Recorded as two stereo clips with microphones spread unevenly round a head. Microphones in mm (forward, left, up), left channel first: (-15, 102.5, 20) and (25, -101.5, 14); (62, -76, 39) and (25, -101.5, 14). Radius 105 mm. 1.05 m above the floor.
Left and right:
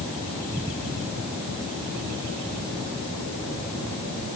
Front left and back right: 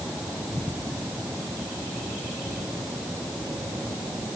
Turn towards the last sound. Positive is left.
No sound to turn to.